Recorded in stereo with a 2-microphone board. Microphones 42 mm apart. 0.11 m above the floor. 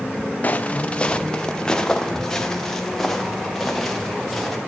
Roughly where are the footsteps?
Left.